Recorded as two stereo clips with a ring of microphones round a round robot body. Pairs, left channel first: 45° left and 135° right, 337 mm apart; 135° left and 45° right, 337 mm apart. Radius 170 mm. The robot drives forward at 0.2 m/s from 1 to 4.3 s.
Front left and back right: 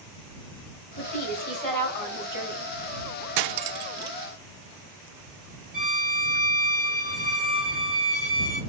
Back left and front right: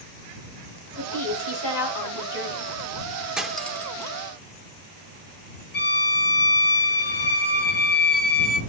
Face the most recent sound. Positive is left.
turn(degrees=110)